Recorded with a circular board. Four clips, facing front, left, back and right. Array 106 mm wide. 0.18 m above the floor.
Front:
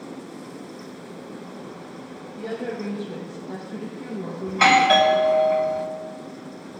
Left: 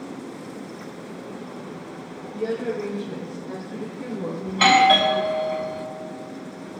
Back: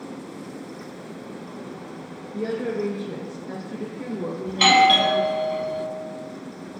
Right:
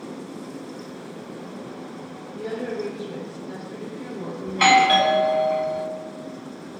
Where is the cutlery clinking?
No cutlery clinking in this recording.